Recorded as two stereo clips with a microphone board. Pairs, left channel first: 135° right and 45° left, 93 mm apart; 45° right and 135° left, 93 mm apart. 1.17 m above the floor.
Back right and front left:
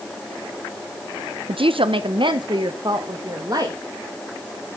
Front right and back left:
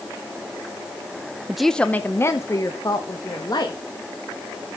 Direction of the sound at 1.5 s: 50° left.